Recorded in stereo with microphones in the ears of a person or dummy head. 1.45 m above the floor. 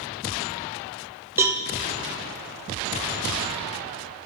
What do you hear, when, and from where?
1.4 s a cowbell: 10° right (ahead or behind), 0.5 m